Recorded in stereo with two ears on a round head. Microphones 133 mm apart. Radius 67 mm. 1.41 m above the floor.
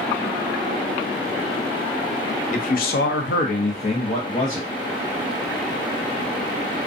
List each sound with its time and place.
2.5 s a man speaking: 50° left (ahead or behind), 0.6 m; by 4.7 s 25° left (ahead or behind), 1.1 m